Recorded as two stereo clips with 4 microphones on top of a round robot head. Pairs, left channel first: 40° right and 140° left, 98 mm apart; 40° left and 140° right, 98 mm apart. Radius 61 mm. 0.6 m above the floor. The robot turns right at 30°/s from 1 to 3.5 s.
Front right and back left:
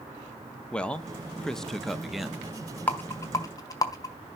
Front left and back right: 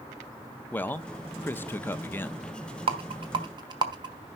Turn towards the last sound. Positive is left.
turn(degrees=-95)